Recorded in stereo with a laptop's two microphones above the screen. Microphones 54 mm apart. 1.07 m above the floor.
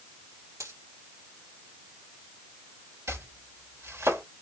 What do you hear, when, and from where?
0.6 s a dropped coin: 75° right (ahead or behind), 5 m
3.1 s chopping: 65° right (ahead or behind), 3 m